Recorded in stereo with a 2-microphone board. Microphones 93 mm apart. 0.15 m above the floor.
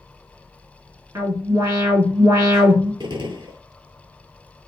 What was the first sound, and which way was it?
An alarm, 35° right (ahead or behind).